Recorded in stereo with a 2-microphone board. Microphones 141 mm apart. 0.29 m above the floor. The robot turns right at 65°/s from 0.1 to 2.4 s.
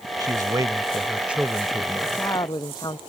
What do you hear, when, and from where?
0.2 s a man speaking: 30° right (ahead or behind); by 2.2 s 20° left (ahead or behind)
2.0 s a woman speaking: 5° left (ahead or behind); by 3.0 s 30° left (ahead or behind)